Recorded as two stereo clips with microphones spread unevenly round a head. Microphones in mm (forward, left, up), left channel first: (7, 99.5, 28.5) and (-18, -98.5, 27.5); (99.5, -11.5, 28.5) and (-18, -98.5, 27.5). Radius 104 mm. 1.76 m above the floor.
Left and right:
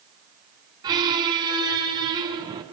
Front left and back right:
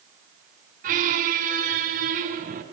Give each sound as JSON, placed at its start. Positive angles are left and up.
{"t": 0.8, "sound": "a squeak", "azimuth_deg": -165, "distance_m": 2.5}